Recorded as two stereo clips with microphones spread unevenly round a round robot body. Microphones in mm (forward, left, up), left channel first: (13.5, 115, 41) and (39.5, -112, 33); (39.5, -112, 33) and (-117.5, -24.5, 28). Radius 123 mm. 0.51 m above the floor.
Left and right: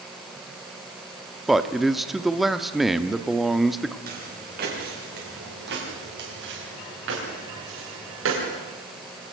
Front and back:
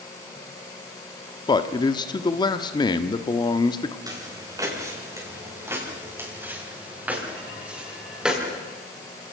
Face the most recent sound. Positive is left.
turn(degrees=-120)